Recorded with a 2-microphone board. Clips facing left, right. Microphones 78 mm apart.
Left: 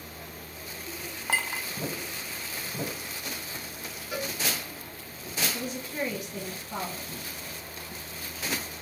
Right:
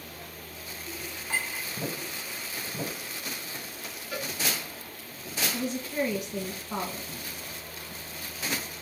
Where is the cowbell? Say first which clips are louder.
Left 2 dB; 15° left (ahead or behind), 0.8 m.